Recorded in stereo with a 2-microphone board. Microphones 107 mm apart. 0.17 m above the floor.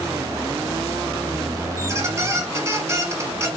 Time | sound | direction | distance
1.8 | a squeak | 25° right (ahead or behind) | 1.3 m